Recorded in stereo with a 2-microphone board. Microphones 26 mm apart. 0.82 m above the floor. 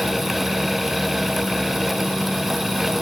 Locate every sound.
Only background noise.